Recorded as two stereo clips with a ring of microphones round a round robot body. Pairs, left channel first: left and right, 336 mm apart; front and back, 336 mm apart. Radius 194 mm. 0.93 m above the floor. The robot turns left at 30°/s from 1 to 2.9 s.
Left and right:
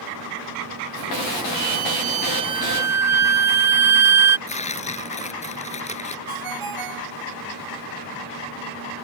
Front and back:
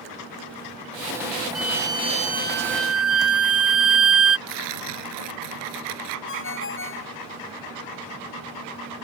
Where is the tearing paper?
160° left.